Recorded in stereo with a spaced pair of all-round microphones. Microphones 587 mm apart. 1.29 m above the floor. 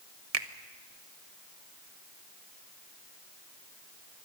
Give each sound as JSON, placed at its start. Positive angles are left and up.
{"t": 0.3, "sound": "a finger snap", "side_deg": -85, "distance_m": 1.1}